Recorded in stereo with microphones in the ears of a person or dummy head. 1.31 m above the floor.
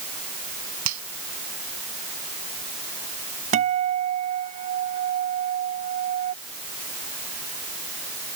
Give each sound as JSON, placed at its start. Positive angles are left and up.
{"t": 0.8, "sound": "a finger snap", "side_deg": -70}
{"t": 3.5, "sound": "a guitar", "side_deg": -35}